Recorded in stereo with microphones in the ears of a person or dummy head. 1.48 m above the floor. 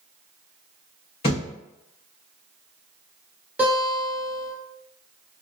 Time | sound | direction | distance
1.2 | a thud | 20° left (ahead or behind) | 0.8 m
3.6 | a guitar | 10° right (ahead or behind) | 1.0 m